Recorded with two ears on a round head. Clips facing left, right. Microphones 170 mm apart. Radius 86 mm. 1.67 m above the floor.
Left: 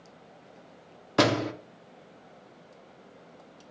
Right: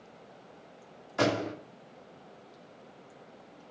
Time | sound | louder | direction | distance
1.2 | a door slam | left 4 dB | 75° left (ahead or behind) | 2.5 m